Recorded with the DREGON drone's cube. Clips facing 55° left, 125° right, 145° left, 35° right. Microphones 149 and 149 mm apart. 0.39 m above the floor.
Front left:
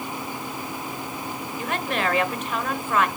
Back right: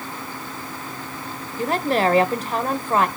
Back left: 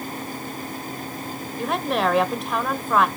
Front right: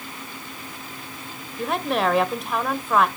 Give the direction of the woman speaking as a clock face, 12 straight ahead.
4 o'clock.